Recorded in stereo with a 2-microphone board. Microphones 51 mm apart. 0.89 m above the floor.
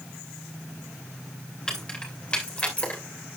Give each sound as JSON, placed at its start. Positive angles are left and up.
{"t": 1.7, "sound": "keys jangling", "side_deg": 15, "distance_m": 3.0}